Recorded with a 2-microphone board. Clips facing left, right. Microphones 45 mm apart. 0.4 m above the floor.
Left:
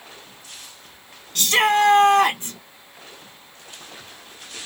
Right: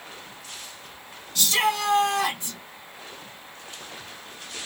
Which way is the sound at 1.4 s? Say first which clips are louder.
Left 6 dB; 50° left (ahead or behind).